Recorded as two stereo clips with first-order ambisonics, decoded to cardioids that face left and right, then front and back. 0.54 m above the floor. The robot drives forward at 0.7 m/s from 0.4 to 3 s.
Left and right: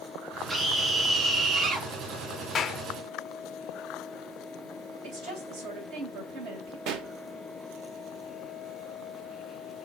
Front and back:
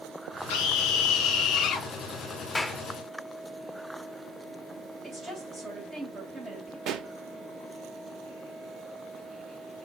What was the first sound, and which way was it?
A scream, 20° right.